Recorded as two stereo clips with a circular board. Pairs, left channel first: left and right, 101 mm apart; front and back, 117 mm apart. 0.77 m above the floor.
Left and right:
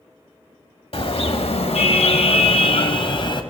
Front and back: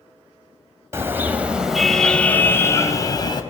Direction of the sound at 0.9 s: 110° left.